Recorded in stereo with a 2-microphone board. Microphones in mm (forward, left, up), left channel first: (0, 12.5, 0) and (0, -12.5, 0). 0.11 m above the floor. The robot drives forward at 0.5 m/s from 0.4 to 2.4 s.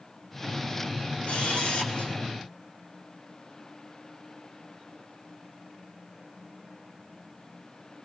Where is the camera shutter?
65° left (ahead or behind), 5 m; by 2.1 s 60° left (ahead or behind), 5 m.